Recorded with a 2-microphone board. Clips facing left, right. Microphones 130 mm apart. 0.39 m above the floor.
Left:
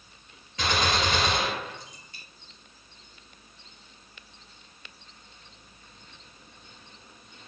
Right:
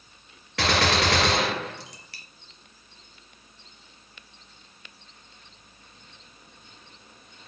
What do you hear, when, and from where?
0.6 s a gunshot: 85° right, 3 m